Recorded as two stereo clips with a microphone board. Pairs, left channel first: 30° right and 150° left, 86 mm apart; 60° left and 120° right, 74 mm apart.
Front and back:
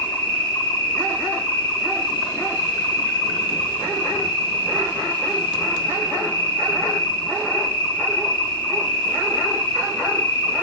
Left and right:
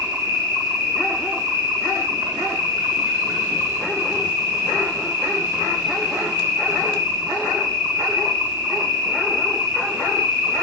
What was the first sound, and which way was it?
An insect, 100° right.